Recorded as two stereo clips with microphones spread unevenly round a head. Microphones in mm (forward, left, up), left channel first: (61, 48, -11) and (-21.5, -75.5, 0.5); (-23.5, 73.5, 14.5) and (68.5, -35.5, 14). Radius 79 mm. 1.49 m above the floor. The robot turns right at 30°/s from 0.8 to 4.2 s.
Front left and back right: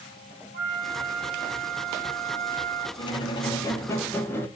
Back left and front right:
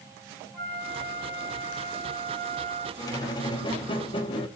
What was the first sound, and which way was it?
A flute, 125° right.